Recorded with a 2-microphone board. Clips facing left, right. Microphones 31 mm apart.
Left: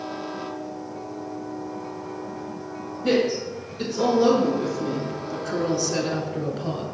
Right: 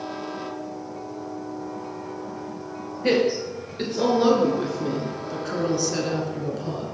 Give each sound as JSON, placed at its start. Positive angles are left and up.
{"t": 3.0, "sound": "a woman speaking", "side_deg": -55, "distance_m": 2.0}